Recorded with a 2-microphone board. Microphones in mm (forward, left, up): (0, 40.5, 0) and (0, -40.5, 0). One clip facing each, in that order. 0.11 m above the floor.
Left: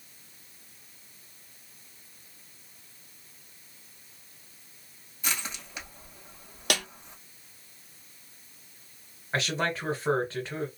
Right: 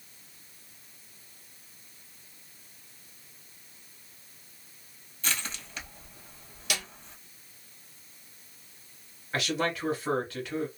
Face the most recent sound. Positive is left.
turn(degrees=30)  # may be behind; listen again after turning